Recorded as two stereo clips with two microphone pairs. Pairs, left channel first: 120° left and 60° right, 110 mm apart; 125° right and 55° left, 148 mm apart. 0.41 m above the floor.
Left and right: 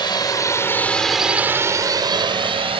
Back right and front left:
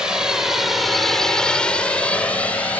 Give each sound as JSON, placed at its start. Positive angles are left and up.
{"t": 0.0, "sound": "a drone", "azimuth_deg": 140}